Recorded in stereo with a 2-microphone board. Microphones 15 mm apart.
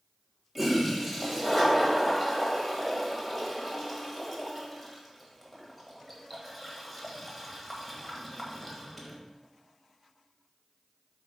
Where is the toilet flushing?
Centre (ahead or behind), 1.5 m.